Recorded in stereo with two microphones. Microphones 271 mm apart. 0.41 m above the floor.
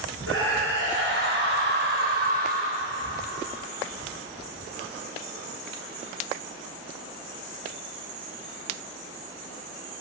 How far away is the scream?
About 5.5 m.